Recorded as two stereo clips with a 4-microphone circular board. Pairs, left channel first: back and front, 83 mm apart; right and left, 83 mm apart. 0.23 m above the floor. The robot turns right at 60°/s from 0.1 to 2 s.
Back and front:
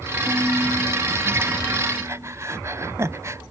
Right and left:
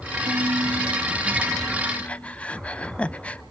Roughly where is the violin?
Left.